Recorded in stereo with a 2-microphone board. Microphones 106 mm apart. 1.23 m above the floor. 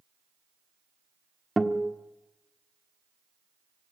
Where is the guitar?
Centre (ahead or behind), 1.3 m.